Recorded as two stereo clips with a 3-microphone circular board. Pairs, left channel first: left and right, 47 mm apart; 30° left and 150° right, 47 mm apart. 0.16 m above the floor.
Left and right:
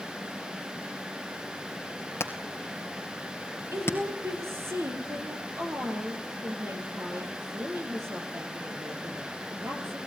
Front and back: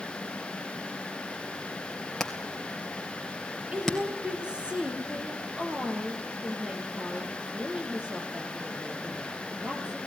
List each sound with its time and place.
2.2 s hammering: 110° left, 2.5 m
3.7 s a woman speaking: 80° right, 4.5 m